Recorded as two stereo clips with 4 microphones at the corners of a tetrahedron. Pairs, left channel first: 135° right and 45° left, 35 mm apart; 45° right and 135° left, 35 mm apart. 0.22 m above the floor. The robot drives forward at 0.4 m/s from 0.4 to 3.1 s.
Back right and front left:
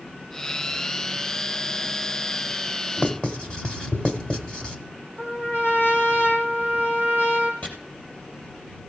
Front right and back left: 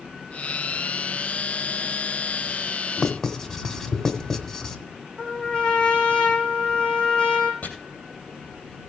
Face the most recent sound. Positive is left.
turn(degrees=-90)